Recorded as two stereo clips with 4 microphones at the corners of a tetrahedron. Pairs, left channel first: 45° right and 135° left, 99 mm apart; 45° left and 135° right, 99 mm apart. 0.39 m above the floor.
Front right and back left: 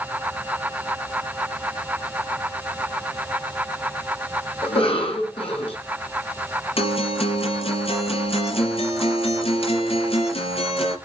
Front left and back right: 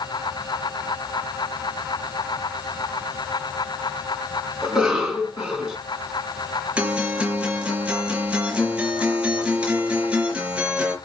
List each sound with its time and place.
4.6 s a cough: 50° right, 5.5 m
6.8 s a guitar: 55° right, 4 m